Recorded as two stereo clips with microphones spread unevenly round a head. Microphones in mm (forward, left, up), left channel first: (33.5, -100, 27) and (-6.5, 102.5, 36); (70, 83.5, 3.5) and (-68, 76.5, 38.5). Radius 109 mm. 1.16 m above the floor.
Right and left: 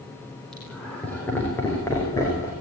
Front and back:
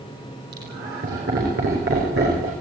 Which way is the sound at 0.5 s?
165° right.